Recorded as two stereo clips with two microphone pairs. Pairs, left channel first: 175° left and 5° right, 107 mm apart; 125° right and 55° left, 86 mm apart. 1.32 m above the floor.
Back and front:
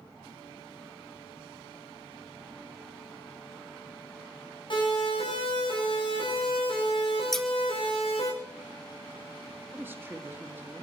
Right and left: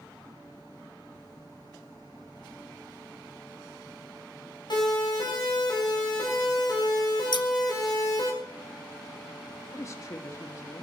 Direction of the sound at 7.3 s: 95° right.